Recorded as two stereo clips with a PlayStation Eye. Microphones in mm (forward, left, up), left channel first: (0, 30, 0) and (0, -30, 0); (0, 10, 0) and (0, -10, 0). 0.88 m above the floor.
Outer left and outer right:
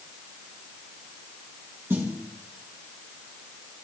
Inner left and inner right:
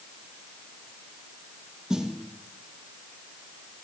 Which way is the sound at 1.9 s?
45° right (ahead or behind).